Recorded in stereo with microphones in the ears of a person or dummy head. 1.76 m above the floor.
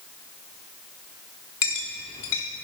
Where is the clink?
20° left (ahead or behind), 0.6 m.